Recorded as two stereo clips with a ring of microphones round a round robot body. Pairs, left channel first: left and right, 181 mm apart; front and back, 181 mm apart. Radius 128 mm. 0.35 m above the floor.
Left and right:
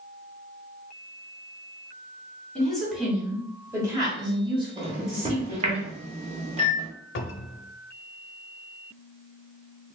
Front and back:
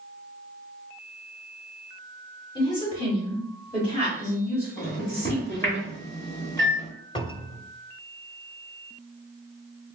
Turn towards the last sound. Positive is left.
turn(degrees=65)